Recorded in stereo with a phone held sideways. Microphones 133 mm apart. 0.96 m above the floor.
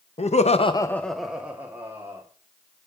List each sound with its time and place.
0.2 s laughter: 55° left (ahead or behind), 0.7 m; by 2.2 s 20° right (ahead or behind), 2 m